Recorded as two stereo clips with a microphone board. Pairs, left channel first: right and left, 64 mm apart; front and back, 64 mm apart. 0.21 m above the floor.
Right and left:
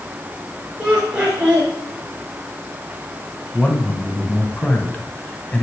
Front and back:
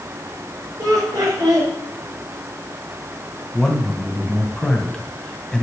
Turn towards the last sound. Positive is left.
turn(degrees=-65)